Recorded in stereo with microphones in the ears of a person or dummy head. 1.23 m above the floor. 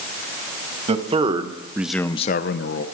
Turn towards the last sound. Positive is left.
turn(degrees=60)  # may be behind; listen again after turning